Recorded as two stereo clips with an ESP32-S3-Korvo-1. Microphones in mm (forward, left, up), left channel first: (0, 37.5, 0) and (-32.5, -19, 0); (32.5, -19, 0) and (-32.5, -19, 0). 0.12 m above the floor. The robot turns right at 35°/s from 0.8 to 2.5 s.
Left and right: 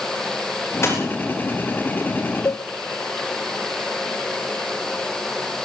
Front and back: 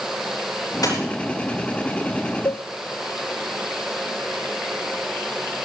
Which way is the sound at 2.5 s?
25° left.